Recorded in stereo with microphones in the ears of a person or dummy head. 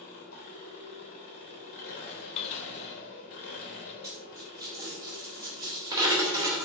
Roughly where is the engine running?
Left.